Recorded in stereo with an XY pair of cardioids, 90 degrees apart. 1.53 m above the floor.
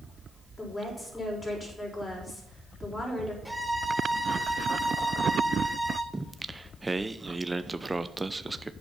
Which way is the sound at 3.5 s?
5° left.